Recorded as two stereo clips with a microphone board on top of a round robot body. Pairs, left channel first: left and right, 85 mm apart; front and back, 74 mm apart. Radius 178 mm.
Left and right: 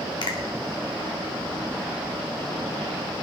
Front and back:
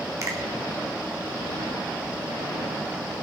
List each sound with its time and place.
0.2 s a finger snap: 125° left, 1.9 m